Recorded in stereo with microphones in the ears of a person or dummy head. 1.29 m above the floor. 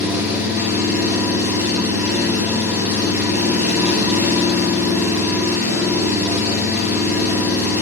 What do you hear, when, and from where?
0.0 s an engine running: 10° right (ahead or behind), 1.3 m